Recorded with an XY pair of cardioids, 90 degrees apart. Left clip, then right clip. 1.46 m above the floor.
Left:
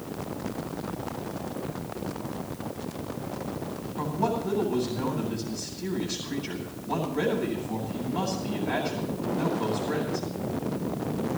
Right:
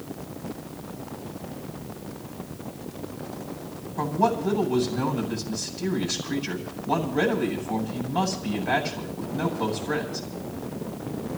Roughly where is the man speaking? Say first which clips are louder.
Right 5 dB; ahead right.